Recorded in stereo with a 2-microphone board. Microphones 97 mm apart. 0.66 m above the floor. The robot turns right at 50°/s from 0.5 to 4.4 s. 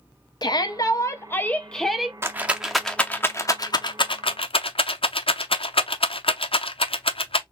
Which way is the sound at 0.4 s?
105° left.